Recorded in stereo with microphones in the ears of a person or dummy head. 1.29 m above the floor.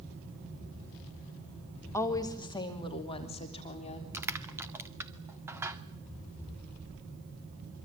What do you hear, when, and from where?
1.9 s a woman speaking: 15° left (ahead or behind), 2 m; by 4.0 s 30° left (ahead or behind), 4.5 m
4.1 s crushing: 10° right (ahead or behind), 1.7 m